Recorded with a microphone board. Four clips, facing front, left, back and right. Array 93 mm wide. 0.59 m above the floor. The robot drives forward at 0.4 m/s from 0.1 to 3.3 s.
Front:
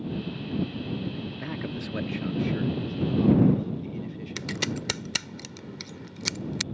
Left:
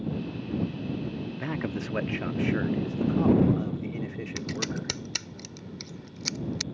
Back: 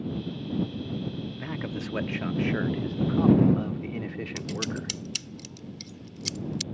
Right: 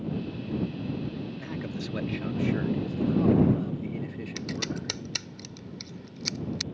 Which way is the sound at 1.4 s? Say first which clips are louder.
Left 3 dB, back 1 dB; 85° left.